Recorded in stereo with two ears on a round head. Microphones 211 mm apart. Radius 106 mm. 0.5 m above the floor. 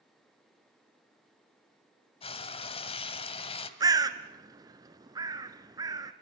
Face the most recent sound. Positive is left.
turn(degrees=-15)  # may be behind; listen again after turning